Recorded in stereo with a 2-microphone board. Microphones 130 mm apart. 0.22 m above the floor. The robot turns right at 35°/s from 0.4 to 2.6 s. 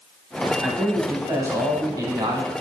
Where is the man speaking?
165° right, 1.1 m; by 2.5 s 100° right, 1.1 m.